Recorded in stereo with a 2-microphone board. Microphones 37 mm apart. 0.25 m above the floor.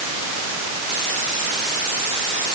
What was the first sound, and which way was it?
Only background noise.